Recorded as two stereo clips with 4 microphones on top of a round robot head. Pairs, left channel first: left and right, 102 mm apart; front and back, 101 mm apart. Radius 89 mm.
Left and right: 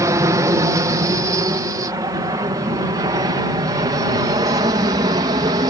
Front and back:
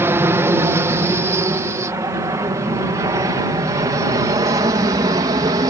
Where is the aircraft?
125° right; by 5.7 s 130° right.